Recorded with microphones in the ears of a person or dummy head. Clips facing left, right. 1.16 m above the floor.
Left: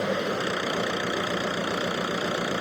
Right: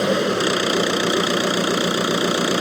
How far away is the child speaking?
No child speaking in this recording.